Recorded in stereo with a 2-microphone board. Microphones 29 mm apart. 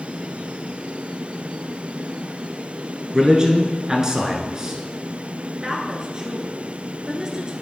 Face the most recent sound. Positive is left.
turn(degrees=-25)  # may be behind; listen again after turning